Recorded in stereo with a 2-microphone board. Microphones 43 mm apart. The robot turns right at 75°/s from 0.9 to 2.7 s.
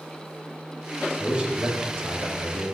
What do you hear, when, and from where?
1.2 s a man speaking: 175° right, 3 m; by 2.7 s 60° right, 3 m